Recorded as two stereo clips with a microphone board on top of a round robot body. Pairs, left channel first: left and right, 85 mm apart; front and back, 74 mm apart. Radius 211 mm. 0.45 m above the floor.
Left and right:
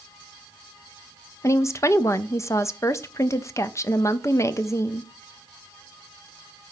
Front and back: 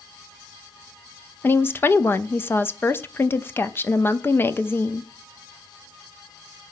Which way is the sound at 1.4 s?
45° left.